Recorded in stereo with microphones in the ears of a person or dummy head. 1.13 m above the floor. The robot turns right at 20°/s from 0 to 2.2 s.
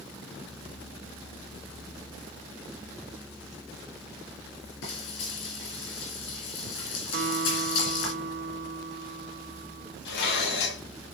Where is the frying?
75° left (ahead or behind), 4 m.